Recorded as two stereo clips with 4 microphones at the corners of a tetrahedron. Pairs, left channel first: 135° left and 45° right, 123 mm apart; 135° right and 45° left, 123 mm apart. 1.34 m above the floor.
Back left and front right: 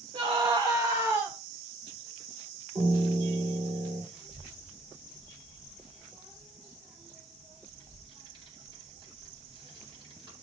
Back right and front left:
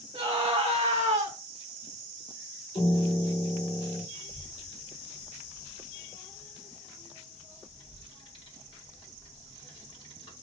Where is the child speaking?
90° right, 2.5 m.